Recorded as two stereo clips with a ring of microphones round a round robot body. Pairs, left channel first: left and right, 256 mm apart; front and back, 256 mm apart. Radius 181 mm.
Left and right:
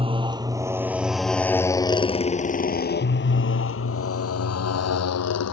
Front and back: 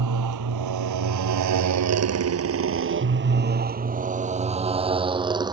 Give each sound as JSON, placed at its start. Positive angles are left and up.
{"t": 0.0, "sound": "a motorcycle", "azimuth_deg": -160}